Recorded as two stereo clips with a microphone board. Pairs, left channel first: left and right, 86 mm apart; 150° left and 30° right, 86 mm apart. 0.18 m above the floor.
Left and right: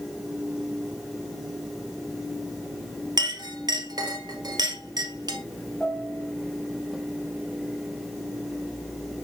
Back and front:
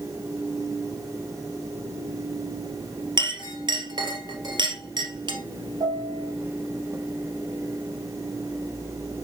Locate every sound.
3.2 s a clink: 55° right, 2 m
5.8 s a piano: 10° left, 6 m